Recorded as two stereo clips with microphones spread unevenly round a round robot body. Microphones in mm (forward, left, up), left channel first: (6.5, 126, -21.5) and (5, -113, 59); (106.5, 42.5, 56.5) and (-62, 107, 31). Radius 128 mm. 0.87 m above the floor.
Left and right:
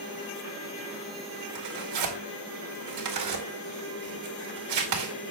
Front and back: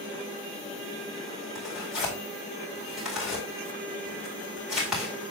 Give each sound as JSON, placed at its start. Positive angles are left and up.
{"t": 1.6, "sound": "tearing paper", "azimuth_deg": -115, "distance_m": 2.0}